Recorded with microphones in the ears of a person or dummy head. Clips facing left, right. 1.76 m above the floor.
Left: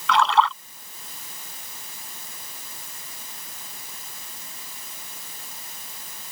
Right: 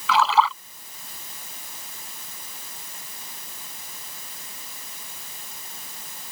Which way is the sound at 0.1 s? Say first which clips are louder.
Even; 5° right (ahead or behind).